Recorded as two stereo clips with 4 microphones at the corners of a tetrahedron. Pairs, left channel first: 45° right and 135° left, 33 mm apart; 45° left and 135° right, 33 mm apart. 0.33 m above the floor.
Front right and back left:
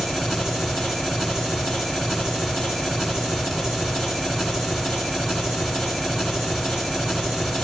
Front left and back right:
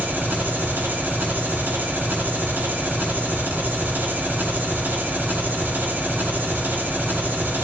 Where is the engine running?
145° right, 3 m.